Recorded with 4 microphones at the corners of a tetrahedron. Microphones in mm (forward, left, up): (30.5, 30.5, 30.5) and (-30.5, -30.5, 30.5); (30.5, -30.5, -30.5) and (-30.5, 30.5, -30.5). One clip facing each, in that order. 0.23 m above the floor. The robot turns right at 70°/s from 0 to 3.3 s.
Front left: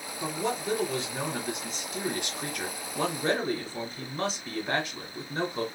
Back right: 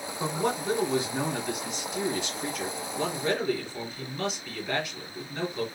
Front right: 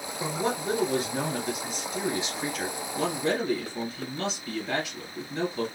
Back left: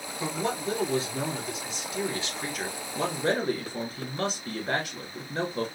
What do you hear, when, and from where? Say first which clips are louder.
0.2 s a man speaking: back right 2 dB, front right 1 dB; 115° right, 2 m; by 5.7 s 100° left, 2 m